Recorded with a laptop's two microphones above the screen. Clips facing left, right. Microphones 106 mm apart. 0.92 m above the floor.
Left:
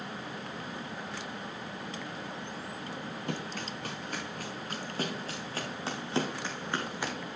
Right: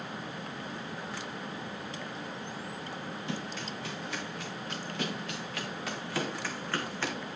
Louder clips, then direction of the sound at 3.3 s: Left 1 dB; 50° left (ahead or behind).